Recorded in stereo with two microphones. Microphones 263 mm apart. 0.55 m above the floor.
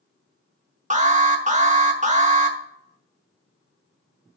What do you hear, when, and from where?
0.9 s an alarm: 25° right (ahead or behind), 0.8 m